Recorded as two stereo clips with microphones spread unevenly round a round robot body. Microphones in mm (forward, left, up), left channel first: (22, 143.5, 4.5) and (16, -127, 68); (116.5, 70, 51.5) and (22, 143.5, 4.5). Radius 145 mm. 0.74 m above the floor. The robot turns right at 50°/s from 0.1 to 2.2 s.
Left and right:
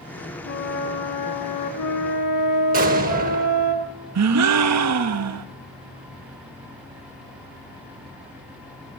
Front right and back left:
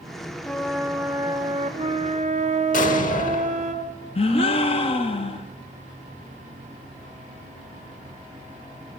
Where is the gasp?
95° right, 1.2 m.